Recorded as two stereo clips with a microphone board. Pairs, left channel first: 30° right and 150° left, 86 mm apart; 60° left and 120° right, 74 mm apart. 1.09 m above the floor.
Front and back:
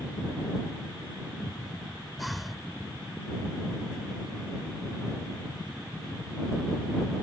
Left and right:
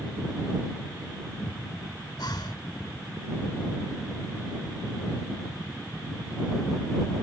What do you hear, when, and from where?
2.2 s breathing: 60° left